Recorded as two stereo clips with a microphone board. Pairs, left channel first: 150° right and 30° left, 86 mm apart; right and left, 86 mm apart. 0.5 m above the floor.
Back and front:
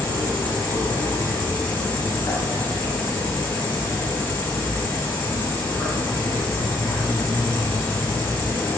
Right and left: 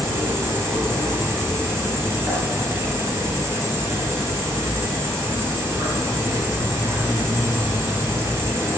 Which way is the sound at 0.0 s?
145° left.